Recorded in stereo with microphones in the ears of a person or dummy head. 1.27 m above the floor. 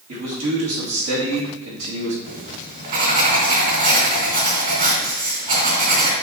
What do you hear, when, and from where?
0.1 s a man speaking: 75° right (ahead or behind), 2.5 m
2.2 s writing: 40° right (ahead or behind), 2.5 m